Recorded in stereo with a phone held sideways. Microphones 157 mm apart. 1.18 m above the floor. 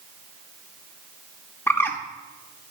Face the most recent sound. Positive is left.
turn(degrees=15)  # may be behind; listen again after turning